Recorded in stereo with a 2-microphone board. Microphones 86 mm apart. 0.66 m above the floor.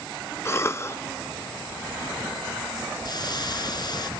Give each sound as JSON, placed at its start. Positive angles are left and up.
{"t": 0.5, "sound": "a cough", "side_deg": 30, "distance_m": 0.5}
{"t": 3.0, "sound": "a hiss", "side_deg": 50, "distance_m": 1.5}